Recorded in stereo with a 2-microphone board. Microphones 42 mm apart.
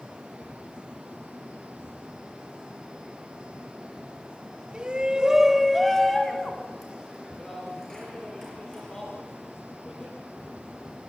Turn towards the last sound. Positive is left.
turn(degrees=15)  # may be behind; listen again after turning